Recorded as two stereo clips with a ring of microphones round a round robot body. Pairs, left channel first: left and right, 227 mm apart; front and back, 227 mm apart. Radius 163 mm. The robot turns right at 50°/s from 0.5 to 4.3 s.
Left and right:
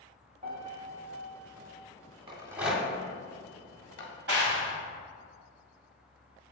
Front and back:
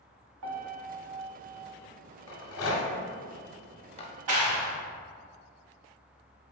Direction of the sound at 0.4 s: 160° right.